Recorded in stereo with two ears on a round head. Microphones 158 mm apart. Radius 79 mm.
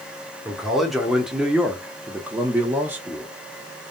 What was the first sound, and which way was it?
A man speaking, centre (ahead or behind).